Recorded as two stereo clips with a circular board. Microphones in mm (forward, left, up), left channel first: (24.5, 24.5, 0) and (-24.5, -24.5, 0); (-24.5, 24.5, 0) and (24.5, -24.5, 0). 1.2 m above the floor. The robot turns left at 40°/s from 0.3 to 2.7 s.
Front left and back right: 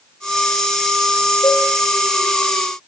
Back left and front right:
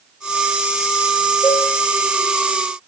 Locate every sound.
1.4 s a cowbell: 85° left, 1.8 m; by 1.7 s 80° left, 1.8 m